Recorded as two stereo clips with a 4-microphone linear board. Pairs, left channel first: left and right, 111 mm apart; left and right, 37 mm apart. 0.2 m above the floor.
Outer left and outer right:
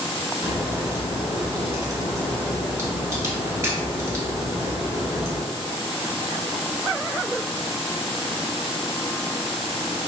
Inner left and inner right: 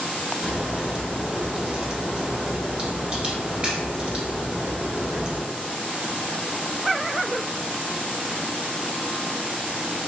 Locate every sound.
0.4 s a crack: 30° right (ahead or behind), 1.2 m